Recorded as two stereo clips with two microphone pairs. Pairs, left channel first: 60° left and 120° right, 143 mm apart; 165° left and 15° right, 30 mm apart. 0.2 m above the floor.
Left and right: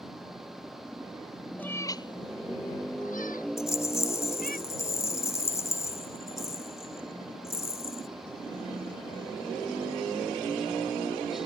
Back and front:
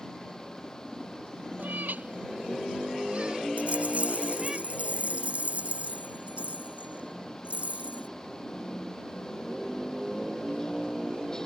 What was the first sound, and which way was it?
A cat meowing, 20° right.